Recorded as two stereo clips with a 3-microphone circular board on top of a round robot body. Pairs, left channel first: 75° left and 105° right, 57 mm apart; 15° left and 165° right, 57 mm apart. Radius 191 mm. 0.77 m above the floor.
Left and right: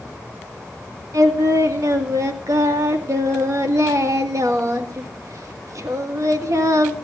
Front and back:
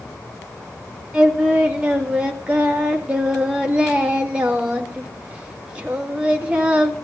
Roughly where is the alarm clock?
No alarm clock in this recording.